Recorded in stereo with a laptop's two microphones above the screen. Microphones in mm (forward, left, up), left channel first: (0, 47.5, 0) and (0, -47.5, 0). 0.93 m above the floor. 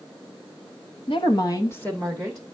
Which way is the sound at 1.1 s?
60° left (ahead or behind).